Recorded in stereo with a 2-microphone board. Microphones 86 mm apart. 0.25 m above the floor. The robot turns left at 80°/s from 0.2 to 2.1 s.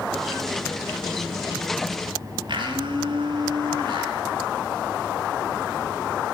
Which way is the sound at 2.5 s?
60° right (ahead or behind).